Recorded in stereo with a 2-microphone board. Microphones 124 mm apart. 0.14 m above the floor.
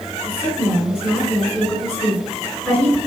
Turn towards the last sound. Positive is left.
turn(degrees=-5)  # may be behind; listen again after turning